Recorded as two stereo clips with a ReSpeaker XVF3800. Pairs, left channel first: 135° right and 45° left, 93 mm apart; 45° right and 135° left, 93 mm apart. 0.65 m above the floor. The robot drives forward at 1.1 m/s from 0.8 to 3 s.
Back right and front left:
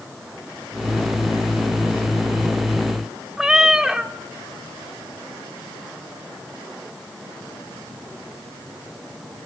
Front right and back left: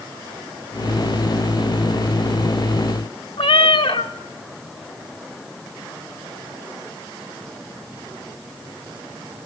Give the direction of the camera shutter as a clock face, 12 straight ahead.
I don't hear a camera shutter.